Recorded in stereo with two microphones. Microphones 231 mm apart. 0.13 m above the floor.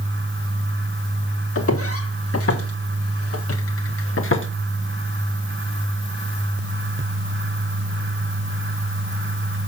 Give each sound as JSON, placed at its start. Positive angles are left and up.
{"t": 1.6, "sound": "footsteps", "side_deg": 75, "distance_m": 2.5}